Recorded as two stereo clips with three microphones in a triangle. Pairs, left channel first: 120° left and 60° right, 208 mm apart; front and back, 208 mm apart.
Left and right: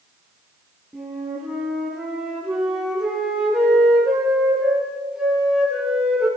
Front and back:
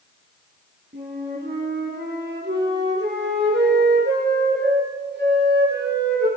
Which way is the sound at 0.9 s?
145° right.